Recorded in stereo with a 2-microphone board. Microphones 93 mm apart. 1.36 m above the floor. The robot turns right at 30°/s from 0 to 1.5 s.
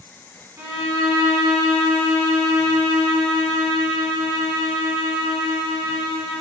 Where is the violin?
30° right (ahead or behind), 0.7 m; by 6.4 s 50° right (ahead or behind), 0.7 m.